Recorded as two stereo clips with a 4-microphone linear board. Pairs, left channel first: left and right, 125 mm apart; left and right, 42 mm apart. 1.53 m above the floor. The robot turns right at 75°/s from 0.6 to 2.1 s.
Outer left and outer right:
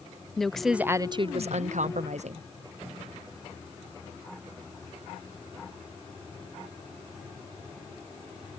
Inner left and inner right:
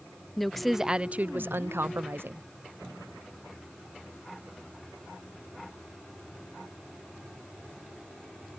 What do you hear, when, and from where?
0.4 s a woman speaking: straight behind; by 2.4 s 70° right